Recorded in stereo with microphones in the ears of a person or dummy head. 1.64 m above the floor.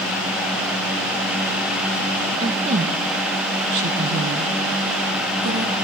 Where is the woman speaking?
35° right (ahead or behind), 1.9 m; by 5.7 s 80° right, 3.5 m.